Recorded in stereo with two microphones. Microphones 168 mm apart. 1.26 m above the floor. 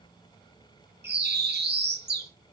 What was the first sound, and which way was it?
A bird, 75° right (ahead or behind).